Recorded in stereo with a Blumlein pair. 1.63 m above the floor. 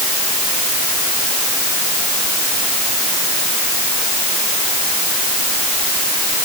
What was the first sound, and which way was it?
Only background noise.